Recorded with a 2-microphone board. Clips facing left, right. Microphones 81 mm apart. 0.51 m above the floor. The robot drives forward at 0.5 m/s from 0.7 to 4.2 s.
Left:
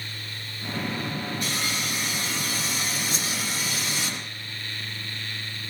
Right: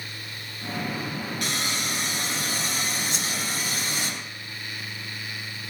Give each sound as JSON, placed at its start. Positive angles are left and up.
{"t": 1.4, "sound": "sawing", "side_deg": -70, "distance_m": 3.5}
{"t": 3.1, "sound": "a whoosh", "side_deg": 40, "distance_m": 2.0}